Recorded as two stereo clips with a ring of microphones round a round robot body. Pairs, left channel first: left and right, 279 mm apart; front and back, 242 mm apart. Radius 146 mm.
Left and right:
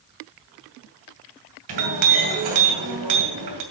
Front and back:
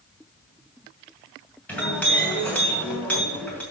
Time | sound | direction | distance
1.7 | a clink | 85° right | 2.5 m